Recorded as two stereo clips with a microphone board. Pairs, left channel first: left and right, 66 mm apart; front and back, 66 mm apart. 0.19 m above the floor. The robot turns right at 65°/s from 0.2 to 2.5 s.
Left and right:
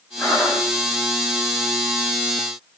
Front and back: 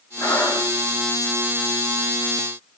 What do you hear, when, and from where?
0.2 s breathing: 25° left, 9.5 m; by 1.1 s 85° left, 9.5 m